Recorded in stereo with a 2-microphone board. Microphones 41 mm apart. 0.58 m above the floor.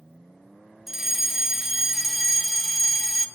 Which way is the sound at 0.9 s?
10° right (ahead or behind).